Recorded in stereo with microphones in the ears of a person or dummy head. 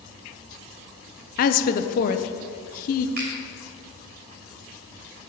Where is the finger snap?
55° right (ahead or behind), 3 m.